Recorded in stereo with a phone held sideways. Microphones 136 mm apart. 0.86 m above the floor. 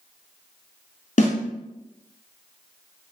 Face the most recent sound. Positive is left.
turn(degrees=65)  # may be behind; listen again after turning